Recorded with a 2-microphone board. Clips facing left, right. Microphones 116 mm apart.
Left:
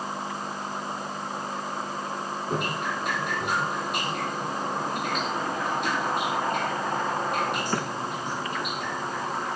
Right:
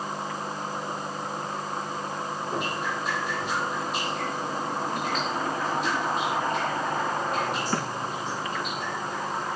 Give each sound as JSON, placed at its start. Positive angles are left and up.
{"t": 2.5, "sound": "dripping", "side_deg": 65, "distance_m": 8.5}